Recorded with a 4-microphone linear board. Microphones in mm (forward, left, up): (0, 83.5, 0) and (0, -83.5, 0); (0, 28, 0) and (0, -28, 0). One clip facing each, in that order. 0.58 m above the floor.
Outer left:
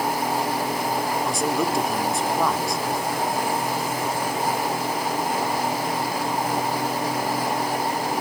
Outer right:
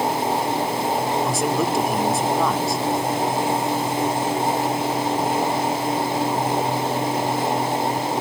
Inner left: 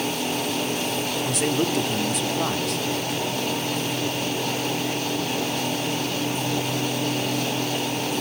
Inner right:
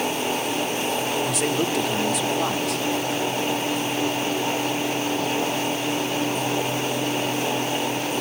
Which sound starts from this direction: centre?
A man speaking, at 1.2 s.